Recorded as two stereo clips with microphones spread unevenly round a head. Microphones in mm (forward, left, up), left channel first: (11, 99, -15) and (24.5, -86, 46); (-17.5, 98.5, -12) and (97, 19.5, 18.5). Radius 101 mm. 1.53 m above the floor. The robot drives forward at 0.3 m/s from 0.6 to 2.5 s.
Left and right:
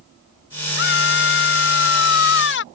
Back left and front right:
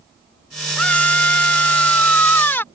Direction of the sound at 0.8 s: 60° left.